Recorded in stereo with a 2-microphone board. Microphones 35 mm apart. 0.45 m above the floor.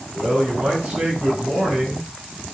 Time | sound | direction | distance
0.1 | a man speaking | 50° right (ahead or behind) | 4.5 m